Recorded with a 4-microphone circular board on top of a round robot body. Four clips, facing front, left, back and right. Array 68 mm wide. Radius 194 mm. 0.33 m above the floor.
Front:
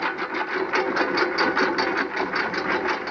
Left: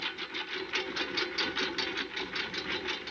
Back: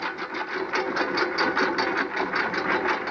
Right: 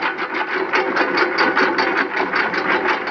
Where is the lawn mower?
80° right; by 3.1 s 100° right.